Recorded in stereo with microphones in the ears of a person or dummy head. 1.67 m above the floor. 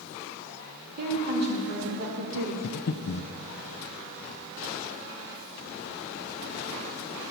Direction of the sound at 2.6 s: 60° left (ahead or behind).